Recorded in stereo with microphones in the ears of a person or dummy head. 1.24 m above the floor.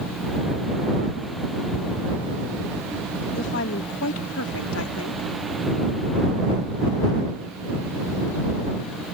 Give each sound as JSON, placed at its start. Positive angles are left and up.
{"t": 3.3, "sound": "a woman speaking", "side_deg": 60}